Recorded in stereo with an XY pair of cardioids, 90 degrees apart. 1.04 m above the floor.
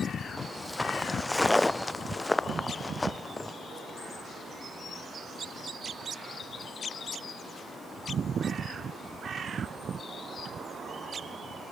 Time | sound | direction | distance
0.4 | footsteps | 10° left | ?